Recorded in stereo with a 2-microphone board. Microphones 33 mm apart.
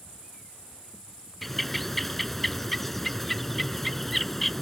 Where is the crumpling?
I don't hear crumpling.